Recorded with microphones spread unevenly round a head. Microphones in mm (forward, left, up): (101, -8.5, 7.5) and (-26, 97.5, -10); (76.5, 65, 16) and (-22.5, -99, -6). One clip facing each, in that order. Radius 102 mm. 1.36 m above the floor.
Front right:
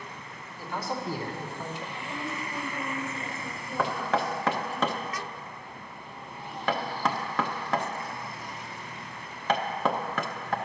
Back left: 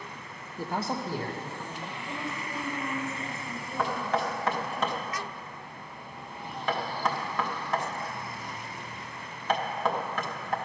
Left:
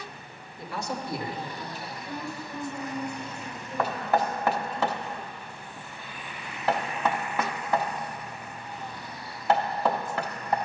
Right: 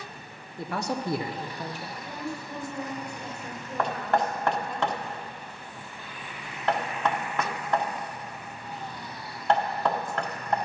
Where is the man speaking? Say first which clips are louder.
Back left 2 dB, right 3 dB; 175° right, 0.7 m; by 1.9 s 95° right, 1.3 m.